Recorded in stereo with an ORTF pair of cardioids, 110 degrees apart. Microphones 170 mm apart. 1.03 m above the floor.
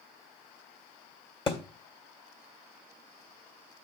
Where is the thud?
30° left, 2 m.